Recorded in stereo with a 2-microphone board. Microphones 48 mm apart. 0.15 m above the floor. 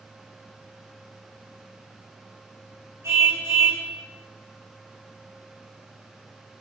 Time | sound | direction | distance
3.0 | a car horn | 70° right (ahead or behind) | 5.5 m